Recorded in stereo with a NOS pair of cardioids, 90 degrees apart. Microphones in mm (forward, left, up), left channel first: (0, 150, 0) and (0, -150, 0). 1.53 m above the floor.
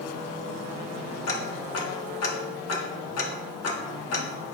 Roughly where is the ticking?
Ahead left.